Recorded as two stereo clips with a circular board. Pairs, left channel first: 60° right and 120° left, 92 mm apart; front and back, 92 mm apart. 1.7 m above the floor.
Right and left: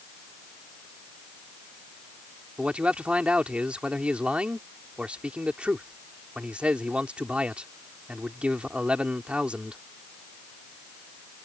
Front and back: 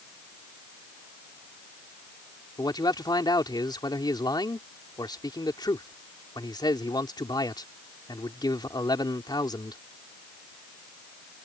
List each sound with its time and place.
2.6 s a man speaking: 40° left